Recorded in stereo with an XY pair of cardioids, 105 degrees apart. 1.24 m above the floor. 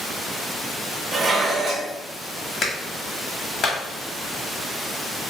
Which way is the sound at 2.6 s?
50° left.